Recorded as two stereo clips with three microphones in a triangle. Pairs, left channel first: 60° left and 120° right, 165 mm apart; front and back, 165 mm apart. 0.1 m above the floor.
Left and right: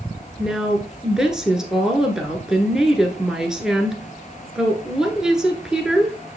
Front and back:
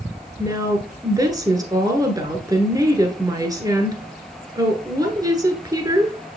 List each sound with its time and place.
0.4 s a woman speaking: 160° left, 1.1 m